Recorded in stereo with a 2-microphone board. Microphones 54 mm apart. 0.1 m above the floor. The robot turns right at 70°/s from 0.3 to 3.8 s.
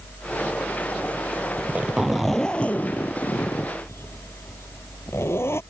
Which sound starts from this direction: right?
A zipper, at 1.6 s.